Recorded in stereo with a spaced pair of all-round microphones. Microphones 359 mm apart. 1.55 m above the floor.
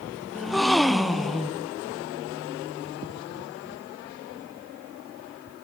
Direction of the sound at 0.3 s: Centre (ahead or behind).